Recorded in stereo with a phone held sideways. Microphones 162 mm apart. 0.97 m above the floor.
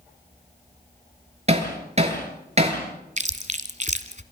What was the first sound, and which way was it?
Hammering, 40° right (ahead or behind).